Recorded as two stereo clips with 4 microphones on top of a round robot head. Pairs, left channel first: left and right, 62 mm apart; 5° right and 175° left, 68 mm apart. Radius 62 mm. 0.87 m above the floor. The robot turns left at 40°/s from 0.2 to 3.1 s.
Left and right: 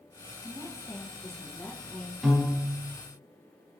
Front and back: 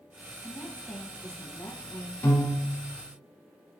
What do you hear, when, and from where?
0.4 s a woman speaking: 85° left, 0.8 m; by 2.1 s 15° left, 0.8 m
2.2 s a piano: 5° right, 0.9 m; by 2.8 s 25° right, 0.9 m